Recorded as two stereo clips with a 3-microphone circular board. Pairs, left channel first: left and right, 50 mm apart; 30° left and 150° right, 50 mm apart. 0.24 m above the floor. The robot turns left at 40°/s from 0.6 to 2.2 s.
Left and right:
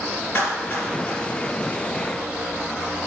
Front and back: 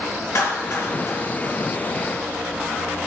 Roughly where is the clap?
Ahead left.